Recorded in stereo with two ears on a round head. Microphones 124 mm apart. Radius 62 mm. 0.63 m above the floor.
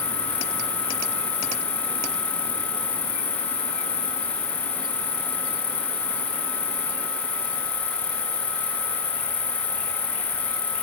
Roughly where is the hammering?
No hammering in this recording.